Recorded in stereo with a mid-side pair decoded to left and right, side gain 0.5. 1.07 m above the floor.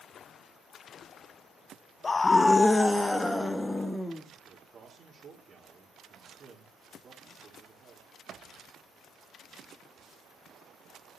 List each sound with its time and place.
2.0 s a scream: 30° left, 0.6 m; by 4.2 s 10° left, 2.0 m
4.5 s a man speaking: 45° right, 2 m